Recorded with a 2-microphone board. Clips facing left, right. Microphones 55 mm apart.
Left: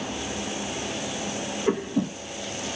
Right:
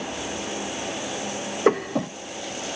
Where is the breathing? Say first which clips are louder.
Right 4 dB; 75° right (ahead or behind), 1.1 m.